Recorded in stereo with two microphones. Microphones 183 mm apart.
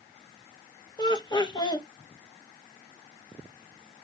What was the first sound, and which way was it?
Laughter, 25° left (ahead or behind).